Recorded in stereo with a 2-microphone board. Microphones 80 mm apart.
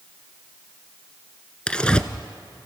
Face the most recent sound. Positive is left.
turn(degrees=15)  # may be behind; listen again after turning